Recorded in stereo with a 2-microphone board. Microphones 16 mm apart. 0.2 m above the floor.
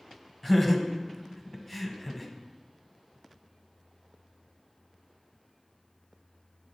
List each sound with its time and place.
0.4 s laughter: 5° left (ahead or behind), 1.0 m